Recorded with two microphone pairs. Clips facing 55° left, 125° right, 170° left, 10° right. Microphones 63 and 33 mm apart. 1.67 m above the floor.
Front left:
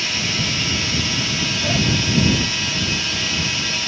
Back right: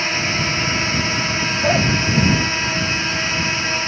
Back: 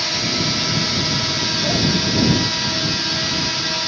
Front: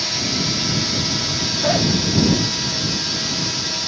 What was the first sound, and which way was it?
A drone, 125° right.